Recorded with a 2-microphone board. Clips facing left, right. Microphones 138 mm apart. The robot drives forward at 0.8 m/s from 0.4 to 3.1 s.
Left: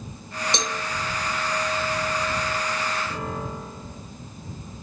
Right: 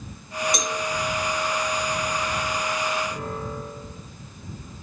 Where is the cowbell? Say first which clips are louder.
Right 1 dB; 30° left (ahead or behind), 1.4 m; by 0.8 s 25° left (ahead or behind), 1.5 m.